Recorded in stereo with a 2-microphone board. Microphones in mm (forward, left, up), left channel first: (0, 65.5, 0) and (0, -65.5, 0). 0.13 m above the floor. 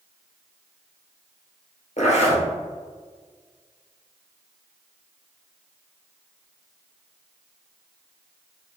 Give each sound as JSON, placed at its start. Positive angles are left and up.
{"t": 2.0, "sound": "a zipper", "side_deg": 60, "distance_m": 1.5}